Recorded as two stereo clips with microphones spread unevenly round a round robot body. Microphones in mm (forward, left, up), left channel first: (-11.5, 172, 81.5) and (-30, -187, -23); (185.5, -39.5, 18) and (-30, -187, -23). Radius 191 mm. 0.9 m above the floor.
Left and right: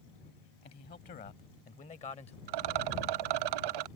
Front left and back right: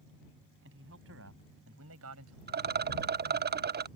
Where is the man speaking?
155° left; by 2.4 s 165° left.